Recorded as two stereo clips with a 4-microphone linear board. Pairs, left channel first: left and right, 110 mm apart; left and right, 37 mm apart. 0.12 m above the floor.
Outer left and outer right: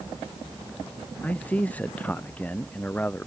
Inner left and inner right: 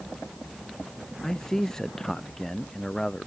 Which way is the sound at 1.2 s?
15° left (ahead or behind).